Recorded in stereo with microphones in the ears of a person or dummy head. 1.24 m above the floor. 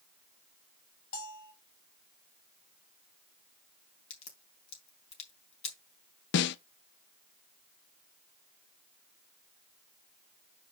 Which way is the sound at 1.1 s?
50° left (ahead or behind).